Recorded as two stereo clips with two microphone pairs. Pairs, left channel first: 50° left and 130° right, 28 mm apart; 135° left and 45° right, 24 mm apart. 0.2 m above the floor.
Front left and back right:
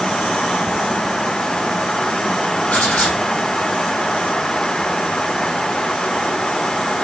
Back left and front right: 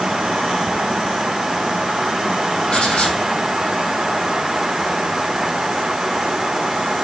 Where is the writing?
80° left, 4 m.